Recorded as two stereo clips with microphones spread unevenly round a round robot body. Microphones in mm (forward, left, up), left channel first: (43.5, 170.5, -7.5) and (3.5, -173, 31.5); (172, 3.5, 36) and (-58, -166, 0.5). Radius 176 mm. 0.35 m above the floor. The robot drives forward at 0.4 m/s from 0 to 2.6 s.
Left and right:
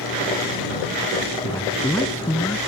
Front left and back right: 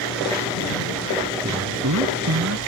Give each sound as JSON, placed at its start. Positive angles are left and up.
{"t": 1.4, "sound": "a man speaking", "azimuth_deg": 165}